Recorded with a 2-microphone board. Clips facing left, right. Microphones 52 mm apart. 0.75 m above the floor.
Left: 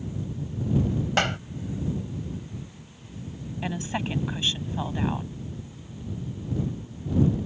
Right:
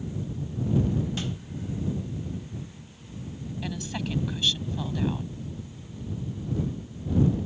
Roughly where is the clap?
Left.